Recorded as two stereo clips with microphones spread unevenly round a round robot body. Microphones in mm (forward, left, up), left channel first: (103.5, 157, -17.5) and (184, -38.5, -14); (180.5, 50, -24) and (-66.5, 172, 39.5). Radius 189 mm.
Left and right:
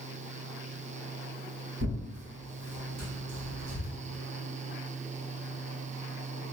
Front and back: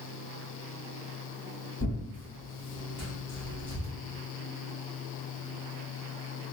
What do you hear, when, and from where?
1.8 s tearing paper: 80° right, 1.7 m